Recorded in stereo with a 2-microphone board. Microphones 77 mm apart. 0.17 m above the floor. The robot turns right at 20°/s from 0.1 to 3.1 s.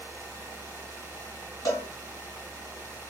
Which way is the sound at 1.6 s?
40° left (ahead or behind).